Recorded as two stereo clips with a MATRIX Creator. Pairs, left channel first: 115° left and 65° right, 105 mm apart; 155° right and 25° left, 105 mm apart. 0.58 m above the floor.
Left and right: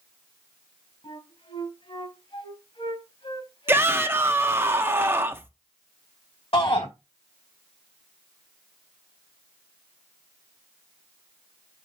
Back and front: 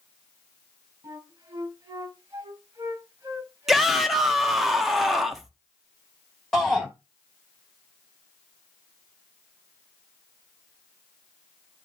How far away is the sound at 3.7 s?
About 0.6 m.